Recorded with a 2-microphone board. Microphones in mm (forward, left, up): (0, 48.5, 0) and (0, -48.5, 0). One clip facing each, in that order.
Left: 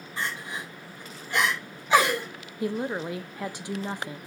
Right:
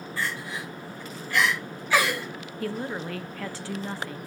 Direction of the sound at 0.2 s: 20° left (ahead or behind).